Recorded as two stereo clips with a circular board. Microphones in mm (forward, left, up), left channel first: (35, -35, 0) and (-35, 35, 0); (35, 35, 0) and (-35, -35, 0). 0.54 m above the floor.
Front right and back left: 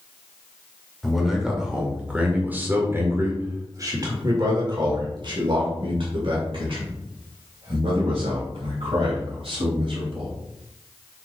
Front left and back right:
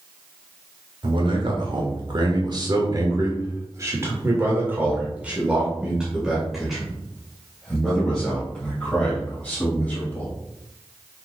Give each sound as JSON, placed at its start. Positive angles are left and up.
{"t": 1.0, "sound": "a man speaking", "azimuth_deg": -135, "distance_m": 2.5}